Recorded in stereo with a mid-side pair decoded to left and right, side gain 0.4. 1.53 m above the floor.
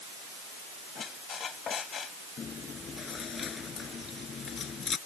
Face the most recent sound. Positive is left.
turn(degrees=55)